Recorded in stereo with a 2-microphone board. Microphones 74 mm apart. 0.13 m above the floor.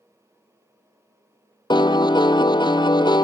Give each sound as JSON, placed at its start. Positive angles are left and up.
{"t": 1.7, "sound": "a piano", "side_deg": 80, "distance_m": 0.7}